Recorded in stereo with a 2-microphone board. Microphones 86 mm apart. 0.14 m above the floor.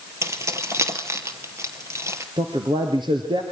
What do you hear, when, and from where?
0.2 s keys jangling: 35° right (ahead or behind), 2.5 m
2.4 s a man speaking: 60° right (ahead or behind), 3 m